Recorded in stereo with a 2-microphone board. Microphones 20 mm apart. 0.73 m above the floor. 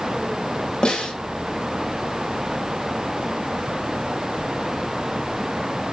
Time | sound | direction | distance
0.8 | a snare drum | 55° left (ahead or behind) | 3 m